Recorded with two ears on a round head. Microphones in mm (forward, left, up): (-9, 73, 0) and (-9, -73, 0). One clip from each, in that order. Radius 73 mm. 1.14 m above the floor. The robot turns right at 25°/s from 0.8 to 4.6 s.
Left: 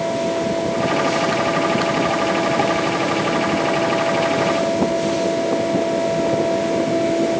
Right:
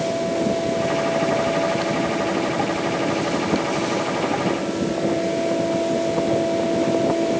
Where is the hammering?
No hammering in this recording.